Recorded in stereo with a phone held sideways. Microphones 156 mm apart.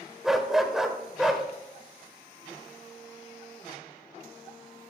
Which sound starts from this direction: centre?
A dog barking, at 0.2 s.